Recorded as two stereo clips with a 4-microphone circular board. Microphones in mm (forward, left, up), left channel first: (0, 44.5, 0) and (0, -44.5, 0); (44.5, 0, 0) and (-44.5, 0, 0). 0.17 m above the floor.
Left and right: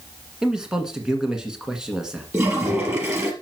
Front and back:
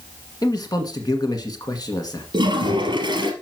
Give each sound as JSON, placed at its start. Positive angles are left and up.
{"t": 0.4, "sound": "a man speaking", "azimuth_deg": -10, "distance_m": 1.7}
{"t": 2.3, "sound": "a toilet flushing", "azimuth_deg": -150, "distance_m": 2.5}